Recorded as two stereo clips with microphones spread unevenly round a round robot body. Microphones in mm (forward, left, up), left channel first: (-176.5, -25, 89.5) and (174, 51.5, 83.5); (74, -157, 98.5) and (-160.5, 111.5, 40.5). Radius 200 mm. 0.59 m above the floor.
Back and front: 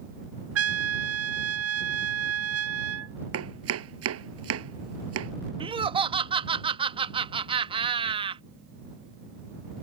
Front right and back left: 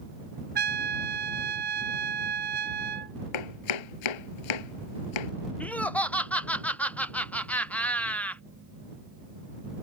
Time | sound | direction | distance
0.6 | a trumpet | 65° left | ?
3.3 | chopping | 40° right | ?
5.6 | laughter | 55° left | ?